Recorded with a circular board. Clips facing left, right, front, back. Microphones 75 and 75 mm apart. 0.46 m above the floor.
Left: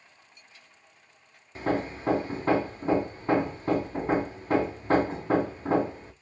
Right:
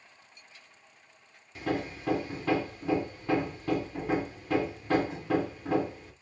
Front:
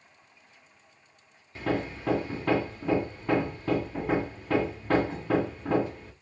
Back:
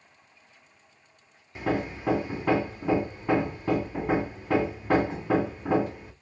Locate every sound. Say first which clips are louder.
1.6 s hammering: left 4 dB, back 1 dB; 110° left, 0.6 m